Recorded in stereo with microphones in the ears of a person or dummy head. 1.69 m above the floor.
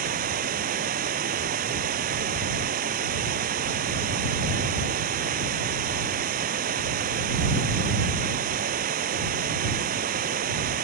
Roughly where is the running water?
Right.